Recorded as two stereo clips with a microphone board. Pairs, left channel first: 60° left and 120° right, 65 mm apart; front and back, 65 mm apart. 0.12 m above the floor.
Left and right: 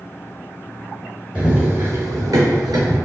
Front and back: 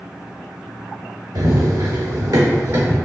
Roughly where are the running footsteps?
Behind.